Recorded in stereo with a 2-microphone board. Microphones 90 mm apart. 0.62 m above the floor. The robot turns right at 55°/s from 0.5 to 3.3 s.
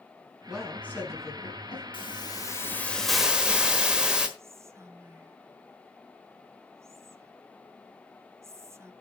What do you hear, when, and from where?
0.5 s a woman speaking: 5° right, 5 m; by 1.8 s 70° left, 5 m
1.9 s a hiss: 115° left, 1.2 m; by 4.3 s 170° right, 1.2 m
4.4 s whispering: 30° right (ahead or behind), 0.6 m